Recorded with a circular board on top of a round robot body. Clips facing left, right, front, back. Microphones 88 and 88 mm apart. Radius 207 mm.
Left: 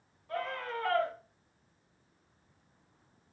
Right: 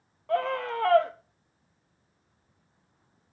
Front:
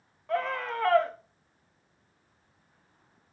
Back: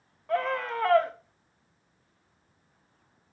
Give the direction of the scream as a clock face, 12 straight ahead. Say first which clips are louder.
Right 9 dB, back 2 dB; 3 o'clock.